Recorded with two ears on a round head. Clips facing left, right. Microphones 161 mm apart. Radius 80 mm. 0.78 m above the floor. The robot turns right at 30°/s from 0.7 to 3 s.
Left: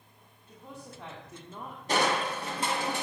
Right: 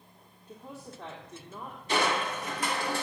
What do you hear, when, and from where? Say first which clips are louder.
0.5 s a woman speaking: right 2 dB; 10° right, 1.9 m; by 2.9 s 55° left, 1.9 m
1.9 s crushing: left 1 dB; 125° left, 1.4 m; by 3.0 s 155° left, 1.4 m